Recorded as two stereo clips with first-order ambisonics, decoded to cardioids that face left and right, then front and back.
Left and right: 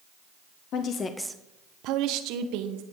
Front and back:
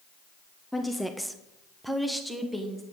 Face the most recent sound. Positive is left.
turn(degrees=-95)